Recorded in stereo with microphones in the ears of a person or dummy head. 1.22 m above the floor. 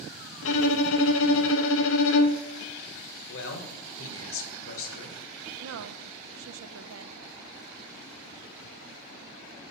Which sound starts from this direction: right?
A woman speaking, at 5.6 s.